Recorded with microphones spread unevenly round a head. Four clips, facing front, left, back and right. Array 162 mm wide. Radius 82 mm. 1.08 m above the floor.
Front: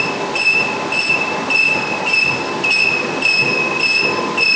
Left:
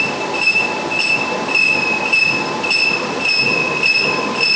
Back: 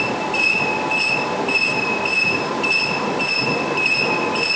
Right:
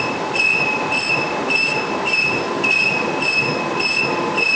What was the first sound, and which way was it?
Only background noise.